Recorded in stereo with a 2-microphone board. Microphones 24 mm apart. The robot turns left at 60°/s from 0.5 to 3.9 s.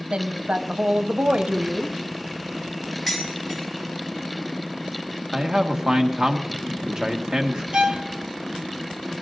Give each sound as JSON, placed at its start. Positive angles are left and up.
{"t": 0.1, "sound": "a woman speaking", "azimuth_deg": -65, "distance_m": 1.0}
{"t": 3.1, "sound": "dishes clattering", "side_deg": 0, "distance_m": 5.0}
{"t": 5.3, "sound": "a man speaking", "side_deg": -35, "distance_m": 1.5}
{"t": 7.7, "sound": "a violin", "side_deg": -60, "distance_m": 0.8}